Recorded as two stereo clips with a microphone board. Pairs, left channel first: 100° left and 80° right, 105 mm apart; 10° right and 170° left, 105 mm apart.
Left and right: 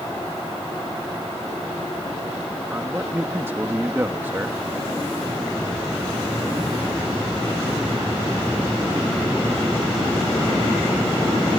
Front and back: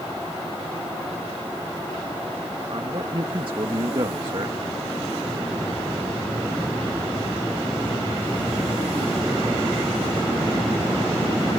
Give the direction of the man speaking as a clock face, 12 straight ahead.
5 o'clock.